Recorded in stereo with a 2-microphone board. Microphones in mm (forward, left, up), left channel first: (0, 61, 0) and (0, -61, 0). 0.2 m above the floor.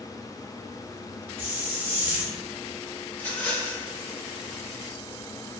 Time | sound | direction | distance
1.4 | a hiss | 20° right (ahead or behind) | 0.8 m
3.1 | a rattle | 20° left (ahead or behind) | 1.3 m